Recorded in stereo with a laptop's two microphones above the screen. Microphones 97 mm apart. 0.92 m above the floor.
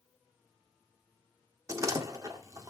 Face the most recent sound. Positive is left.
turn(degrees=-35)  # may be behind; listen again after turning